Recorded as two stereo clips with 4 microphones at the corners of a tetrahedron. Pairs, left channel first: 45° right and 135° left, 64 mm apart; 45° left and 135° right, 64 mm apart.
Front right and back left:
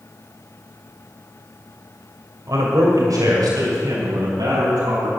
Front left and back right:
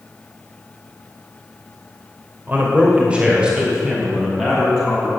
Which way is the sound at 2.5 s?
165° left.